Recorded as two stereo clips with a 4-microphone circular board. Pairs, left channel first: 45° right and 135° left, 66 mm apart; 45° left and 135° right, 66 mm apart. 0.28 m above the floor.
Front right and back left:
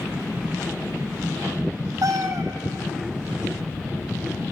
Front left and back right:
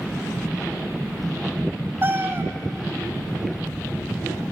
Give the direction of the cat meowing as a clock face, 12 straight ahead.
6 o'clock.